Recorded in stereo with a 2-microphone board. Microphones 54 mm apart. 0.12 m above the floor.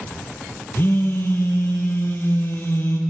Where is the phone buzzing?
40° left (ahead or behind), 1.3 m.